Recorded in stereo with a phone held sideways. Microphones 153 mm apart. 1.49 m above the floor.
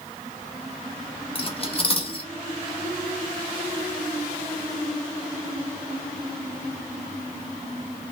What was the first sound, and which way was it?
Cutlery clinking, 40° left (ahead or behind).